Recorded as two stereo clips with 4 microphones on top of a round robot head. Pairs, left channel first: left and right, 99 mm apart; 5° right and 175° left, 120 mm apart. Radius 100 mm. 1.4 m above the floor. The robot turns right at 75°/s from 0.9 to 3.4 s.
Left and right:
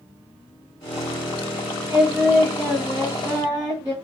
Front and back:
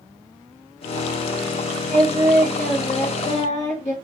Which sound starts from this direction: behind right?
Singing, at 1.9 s.